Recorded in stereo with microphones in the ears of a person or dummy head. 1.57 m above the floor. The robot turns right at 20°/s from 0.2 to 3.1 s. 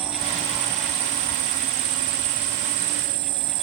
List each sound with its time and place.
0.0 s an insect: 145° right; by 3.6 s 85° right